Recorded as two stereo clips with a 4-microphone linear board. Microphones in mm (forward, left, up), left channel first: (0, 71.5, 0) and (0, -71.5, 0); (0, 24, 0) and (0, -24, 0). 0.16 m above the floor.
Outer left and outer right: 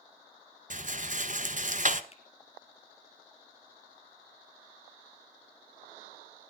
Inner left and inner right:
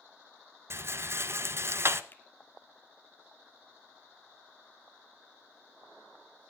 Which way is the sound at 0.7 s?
55° right (ahead or behind).